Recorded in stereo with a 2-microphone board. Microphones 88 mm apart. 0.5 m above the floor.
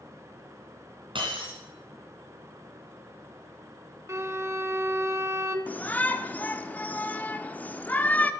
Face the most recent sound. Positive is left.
turn(degrees=20)  # may be behind; listen again after turning